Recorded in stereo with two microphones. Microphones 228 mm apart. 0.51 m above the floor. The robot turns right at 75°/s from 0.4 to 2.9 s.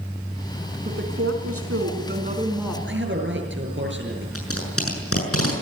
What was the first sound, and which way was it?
A woman speaking, 140° right.